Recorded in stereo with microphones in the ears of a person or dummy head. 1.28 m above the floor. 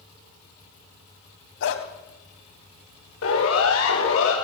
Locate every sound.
1.6 s a dog barking: 75° left (ahead or behind), 4 m
3.2 s a siren: 85° left, 9.5 m; by 4.3 s 80° left, 10 m